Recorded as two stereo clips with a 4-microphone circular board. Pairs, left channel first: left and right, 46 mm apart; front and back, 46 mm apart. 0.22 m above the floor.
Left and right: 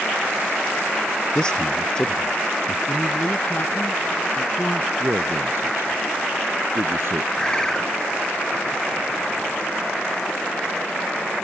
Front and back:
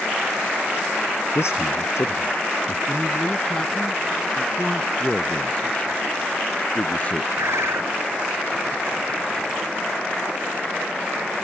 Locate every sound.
1.4 s a man speaking: 15° left
2.9 s a man speaking: 70° left
5.0 s a man speaking: 65° right
7.4 s a bird: 165° left